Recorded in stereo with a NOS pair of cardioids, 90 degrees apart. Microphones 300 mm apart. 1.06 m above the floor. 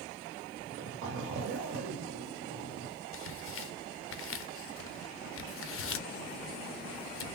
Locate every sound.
0.6 s a zipper: 65° right, 1.7 m
3.1 s tearing paper: 45° left, 0.8 m